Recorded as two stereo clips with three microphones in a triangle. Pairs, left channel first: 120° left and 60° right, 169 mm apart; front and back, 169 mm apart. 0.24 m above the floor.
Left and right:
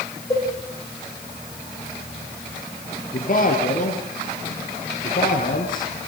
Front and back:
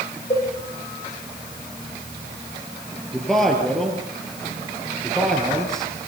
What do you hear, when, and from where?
0.3 s a cowbell: 50° left, 9.5 m
3.1 s a man speaking: 90° left, 5.5 m